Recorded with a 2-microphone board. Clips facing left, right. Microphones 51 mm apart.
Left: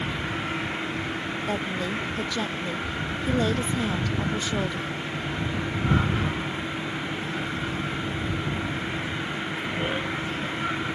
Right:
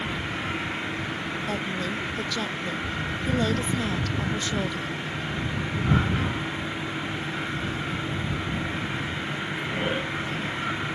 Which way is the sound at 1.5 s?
10° left (ahead or behind).